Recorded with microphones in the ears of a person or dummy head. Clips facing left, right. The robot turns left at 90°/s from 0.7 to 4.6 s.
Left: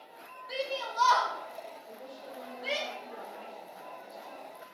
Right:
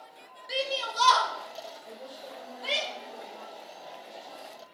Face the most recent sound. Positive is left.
turn(degrees=5)